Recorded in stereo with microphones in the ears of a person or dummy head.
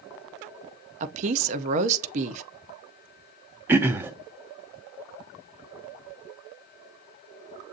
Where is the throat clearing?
15° right (ahead or behind), 0.5 m.